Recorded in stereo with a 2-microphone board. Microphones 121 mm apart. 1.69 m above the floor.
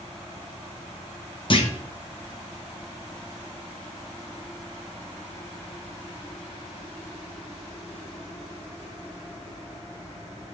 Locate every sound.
1.5 s a clunk: 45° left (ahead or behind), 1.4 m